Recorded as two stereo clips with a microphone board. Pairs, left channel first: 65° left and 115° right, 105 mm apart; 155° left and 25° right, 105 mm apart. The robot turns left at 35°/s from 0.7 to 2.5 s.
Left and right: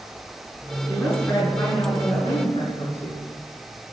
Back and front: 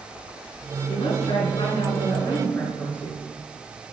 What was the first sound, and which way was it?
A woman speaking, 150° left.